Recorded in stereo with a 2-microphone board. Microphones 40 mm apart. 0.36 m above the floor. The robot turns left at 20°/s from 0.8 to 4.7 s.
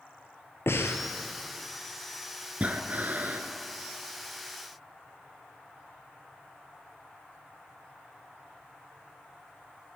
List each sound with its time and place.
0.7 s breathing: 80° left, 1.1 m
2.6 s breathing: 40° right (ahead or behind), 1.0 m; by 3.5 s 55° right (ahead or behind), 1.0 m